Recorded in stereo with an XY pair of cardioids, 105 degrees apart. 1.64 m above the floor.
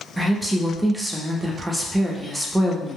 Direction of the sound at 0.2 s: 15° right.